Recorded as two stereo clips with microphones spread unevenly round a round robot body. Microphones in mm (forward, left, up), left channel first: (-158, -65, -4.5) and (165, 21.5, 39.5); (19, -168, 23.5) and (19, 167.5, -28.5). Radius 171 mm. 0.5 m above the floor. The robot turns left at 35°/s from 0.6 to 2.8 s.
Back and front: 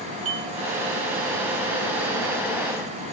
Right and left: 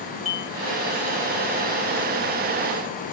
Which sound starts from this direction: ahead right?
Dishes clattering, at 0.2 s.